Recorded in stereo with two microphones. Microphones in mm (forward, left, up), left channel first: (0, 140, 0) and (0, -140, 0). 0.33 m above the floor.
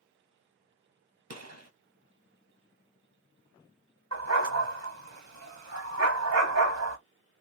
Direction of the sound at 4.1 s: 75° right (ahead or behind).